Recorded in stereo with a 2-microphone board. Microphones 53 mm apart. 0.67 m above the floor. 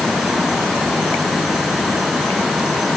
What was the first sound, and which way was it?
Only background noise.